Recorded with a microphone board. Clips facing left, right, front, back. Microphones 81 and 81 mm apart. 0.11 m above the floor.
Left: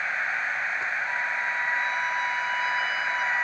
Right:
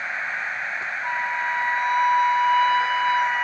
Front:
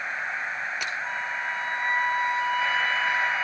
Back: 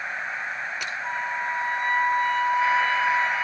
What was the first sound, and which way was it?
A flute, 130° right.